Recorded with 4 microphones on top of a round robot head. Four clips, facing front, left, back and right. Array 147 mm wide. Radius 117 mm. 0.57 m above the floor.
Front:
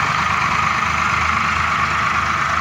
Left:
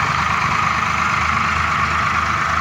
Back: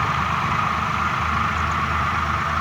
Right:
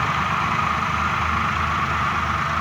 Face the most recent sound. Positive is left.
No sound to turn to.